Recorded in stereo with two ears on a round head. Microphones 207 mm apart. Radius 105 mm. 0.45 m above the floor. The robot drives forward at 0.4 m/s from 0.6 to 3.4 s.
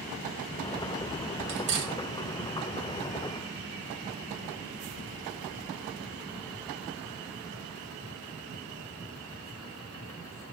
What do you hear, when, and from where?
1.5 s cutlery clinking: 55° right (ahead or behind), 1.5 m; by 1.9 s 50° right (ahead or behind), 1.6 m